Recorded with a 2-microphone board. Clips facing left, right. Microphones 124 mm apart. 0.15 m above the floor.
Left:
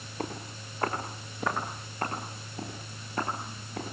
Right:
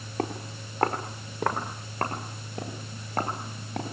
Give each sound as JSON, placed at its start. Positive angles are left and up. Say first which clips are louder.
{"t": 0.2, "sound": "footsteps", "louder": "right 5 dB", "side_deg": -75, "distance_m": 8.0}